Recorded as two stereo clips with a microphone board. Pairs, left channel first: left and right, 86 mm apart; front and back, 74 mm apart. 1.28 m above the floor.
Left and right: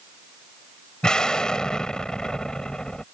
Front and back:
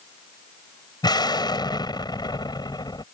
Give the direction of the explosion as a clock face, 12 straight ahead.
12 o'clock.